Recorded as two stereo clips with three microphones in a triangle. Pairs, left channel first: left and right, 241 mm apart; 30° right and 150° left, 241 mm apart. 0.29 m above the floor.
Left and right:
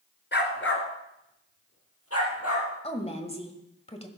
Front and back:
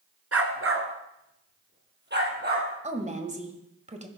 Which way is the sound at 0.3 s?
135° left.